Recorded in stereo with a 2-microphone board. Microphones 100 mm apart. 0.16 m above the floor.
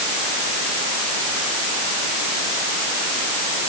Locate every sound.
Only background noise.